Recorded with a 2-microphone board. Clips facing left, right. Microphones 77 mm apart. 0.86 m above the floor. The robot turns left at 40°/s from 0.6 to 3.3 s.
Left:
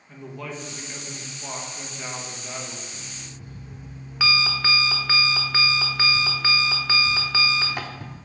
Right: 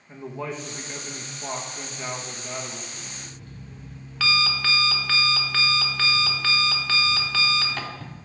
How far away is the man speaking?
About 0.9 m.